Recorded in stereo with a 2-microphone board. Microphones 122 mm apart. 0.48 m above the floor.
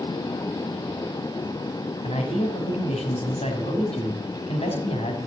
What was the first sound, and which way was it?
A man speaking, 55° left (ahead or behind).